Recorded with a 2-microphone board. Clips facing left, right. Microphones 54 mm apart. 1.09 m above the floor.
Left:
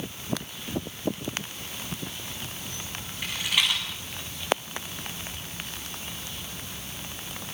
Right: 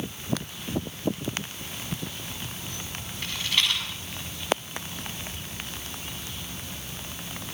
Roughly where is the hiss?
I don't hear a hiss.